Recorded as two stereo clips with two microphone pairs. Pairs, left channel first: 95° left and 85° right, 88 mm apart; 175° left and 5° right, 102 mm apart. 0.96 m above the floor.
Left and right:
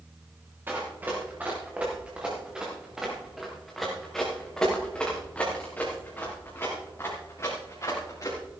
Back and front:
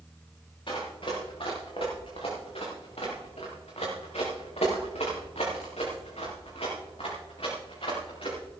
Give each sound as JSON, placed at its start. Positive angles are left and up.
{"t": 0.7, "sound": "running footsteps", "azimuth_deg": -155, "distance_m": 5.0}